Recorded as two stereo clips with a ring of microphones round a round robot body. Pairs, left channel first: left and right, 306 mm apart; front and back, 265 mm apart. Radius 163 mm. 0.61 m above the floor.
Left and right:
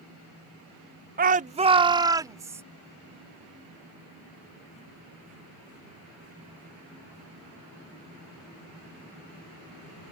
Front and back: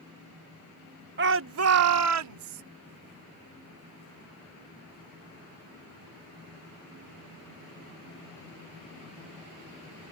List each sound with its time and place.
1.2 s a shout: 145° right; by 2.6 s 170° right